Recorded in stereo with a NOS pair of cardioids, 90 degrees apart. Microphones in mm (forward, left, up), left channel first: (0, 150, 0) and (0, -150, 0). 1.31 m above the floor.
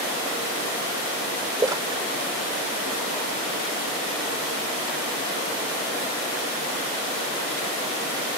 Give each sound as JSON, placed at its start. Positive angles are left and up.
{"t": 1.6, "sound": "a splash", "azimuth_deg": -15}